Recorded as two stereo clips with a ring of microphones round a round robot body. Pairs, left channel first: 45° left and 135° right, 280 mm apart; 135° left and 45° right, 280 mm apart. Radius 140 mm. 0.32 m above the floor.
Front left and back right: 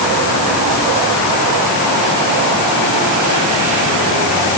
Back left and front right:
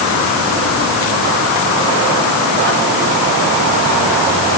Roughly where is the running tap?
I don't hear a running tap.